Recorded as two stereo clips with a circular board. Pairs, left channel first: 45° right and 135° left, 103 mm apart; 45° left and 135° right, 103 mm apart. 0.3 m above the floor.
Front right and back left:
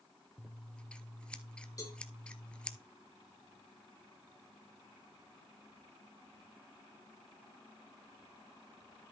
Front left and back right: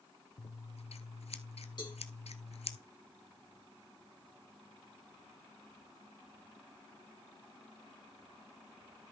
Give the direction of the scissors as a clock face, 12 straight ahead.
11 o'clock.